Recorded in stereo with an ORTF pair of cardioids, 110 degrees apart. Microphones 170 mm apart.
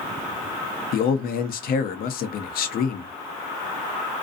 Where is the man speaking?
60° left, 0.8 m.